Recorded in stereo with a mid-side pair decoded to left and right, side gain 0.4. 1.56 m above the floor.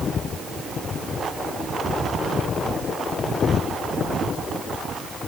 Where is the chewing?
I don't hear chewing.